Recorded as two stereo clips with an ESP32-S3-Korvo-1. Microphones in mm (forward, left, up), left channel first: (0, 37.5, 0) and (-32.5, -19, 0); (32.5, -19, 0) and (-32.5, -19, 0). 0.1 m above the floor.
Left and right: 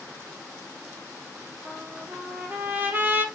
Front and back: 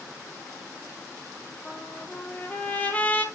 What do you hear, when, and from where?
1.6 s a trumpet: 65° right, 1.4 m